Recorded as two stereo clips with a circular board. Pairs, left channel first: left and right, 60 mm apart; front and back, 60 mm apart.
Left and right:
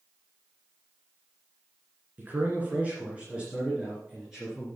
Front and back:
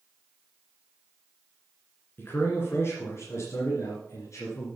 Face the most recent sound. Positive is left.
turn(degrees=-5)